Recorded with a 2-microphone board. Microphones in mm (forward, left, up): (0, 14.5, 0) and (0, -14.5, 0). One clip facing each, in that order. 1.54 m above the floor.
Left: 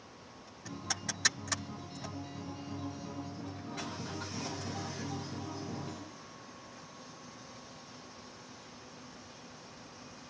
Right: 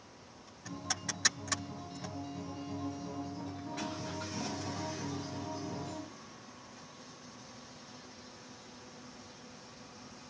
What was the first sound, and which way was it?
A guitar, 25° left (ahead or behind).